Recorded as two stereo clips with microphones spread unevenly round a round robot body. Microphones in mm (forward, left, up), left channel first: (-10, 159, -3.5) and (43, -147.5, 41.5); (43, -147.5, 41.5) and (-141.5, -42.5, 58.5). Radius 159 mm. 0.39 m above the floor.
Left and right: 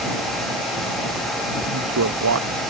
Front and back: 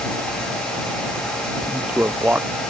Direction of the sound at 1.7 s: 130° right.